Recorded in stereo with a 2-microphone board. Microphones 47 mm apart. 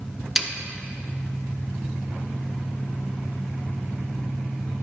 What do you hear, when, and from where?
0.4 s a snare drum: 5° right (ahead or behind), 0.7 m